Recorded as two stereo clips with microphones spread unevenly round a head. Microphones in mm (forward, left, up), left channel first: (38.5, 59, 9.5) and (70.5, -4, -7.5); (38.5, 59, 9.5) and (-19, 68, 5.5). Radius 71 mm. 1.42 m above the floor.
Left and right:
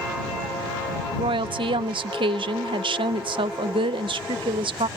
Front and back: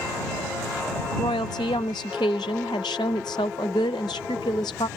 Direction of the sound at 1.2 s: 55° right.